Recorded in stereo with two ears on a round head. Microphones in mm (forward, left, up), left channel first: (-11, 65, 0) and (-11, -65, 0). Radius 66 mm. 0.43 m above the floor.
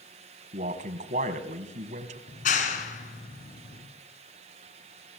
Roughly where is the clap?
Left.